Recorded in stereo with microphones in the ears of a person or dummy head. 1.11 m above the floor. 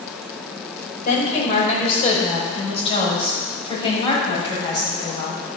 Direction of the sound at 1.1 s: 40° left (ahead or behind).